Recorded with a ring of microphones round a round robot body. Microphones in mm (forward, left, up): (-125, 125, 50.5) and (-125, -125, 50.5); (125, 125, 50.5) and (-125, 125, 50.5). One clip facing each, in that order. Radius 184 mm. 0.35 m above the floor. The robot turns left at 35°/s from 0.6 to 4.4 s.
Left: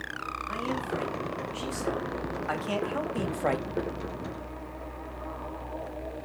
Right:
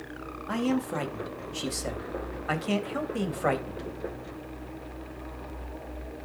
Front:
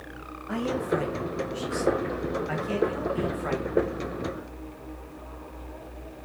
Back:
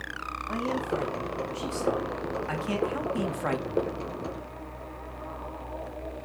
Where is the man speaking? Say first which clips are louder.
Right 6 dB, front 3 dB; 70° right, 2.5 m; by 3.8 s 175° left, 2.5 m.